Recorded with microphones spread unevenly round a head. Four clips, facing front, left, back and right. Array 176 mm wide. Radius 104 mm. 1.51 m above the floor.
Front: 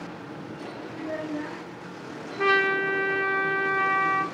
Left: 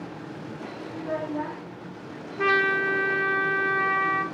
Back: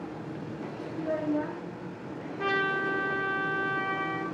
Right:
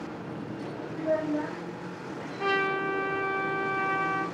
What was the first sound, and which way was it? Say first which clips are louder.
A child speaking: right 2 dB, back 3 dB; 125° right.